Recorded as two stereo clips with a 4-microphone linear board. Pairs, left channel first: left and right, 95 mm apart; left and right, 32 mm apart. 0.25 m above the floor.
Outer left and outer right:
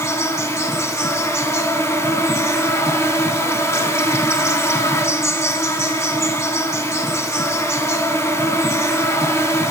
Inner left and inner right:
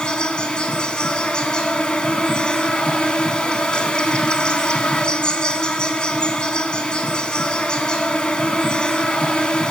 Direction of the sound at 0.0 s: 30° left (ahead or behind).